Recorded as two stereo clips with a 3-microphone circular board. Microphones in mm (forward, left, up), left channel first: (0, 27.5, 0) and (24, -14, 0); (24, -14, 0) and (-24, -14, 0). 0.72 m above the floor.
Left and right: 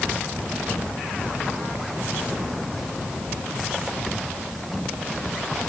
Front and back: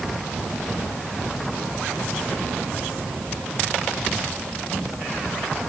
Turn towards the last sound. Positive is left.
No sound to turn to.